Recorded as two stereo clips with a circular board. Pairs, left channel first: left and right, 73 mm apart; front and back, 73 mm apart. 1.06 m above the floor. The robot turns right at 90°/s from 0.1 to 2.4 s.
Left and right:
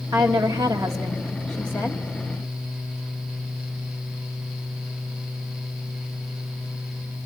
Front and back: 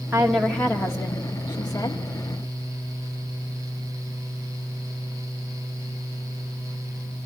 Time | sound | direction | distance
0.1 | a woman speaking | 115° right | 1.8 m